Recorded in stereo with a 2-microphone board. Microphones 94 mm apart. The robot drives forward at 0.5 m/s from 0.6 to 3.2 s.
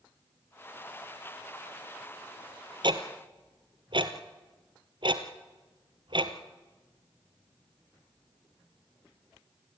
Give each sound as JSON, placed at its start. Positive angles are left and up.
{"t": 2.8, "sound": "ticking", "side_deg": -55, "distance_m": 1.4}